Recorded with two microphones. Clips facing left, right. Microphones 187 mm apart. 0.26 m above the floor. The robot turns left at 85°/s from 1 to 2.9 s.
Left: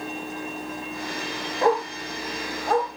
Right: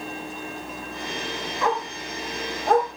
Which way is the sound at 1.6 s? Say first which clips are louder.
Left 5 dB; 40° left (ahead or behind).